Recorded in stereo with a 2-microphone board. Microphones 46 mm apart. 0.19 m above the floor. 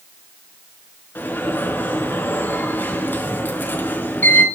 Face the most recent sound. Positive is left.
turn(degrees=40)  # may be behind; listen again after turning